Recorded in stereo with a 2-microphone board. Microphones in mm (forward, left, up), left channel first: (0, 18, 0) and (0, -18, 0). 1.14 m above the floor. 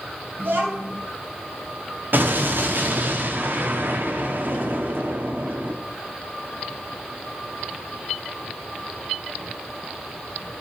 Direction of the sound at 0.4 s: 75° right (ahead or behind).